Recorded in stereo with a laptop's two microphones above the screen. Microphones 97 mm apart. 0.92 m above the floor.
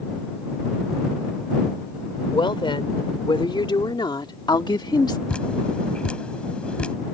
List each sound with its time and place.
2.3 s a woman speaking: 60° left (ahead or behind); by 5.2 s 45° left (ahead or behind)
5.3 s dripping: 10° left (ahead or behind)